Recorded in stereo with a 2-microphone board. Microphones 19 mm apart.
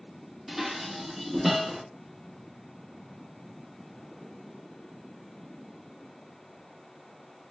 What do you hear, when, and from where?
0.5 s dishes clattering: 10° right (ahead or behind), 0.7 m